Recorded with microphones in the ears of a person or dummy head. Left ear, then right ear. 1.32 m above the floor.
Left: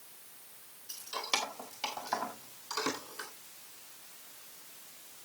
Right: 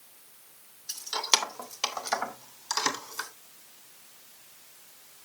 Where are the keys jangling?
45° right (ahead or behind), 1.8 m; by 3.3 s 35° right (ahead or behind), 3 m.